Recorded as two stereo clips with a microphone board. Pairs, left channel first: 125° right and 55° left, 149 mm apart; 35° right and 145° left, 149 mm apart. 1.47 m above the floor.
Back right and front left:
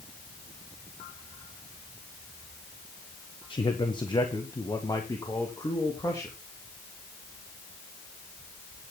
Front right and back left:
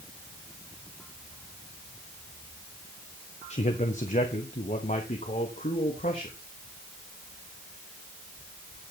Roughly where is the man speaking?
Right.